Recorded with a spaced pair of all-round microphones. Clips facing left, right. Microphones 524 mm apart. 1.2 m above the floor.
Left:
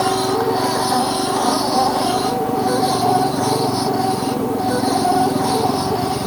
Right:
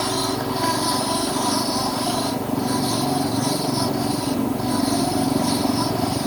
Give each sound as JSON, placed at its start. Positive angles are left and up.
{"t": 0.0, "sound": "a machine running", "side_deg": 80}